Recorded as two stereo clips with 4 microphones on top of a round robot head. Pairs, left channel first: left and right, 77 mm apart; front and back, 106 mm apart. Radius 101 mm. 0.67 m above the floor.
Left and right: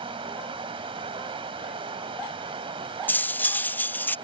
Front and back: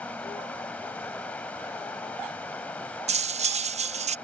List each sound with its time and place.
0.0 s running water: 80° right
3.1 s cutlery clinking: 160° left